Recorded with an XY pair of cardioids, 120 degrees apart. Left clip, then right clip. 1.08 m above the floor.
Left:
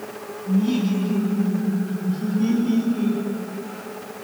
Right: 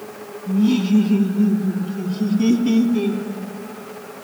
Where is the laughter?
30° right, 2.5 m; by 3.2 s 70° right, 3.5 m.